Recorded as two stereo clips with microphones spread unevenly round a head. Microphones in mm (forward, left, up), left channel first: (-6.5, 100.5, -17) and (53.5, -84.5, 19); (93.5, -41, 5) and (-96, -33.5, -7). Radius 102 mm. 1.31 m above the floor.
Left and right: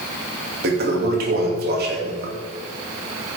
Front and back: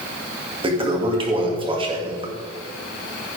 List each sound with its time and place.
0.6 s a toilet flushing: 120° right, 2.5 m